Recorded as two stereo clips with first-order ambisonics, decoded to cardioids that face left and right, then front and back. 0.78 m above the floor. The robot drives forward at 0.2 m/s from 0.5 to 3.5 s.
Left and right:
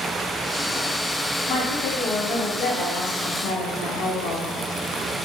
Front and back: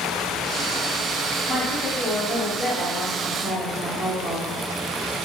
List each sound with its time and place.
1.5 s a woman speaking: 85° left, 1.4 m; by 4.5 s 100° left, 1.5 m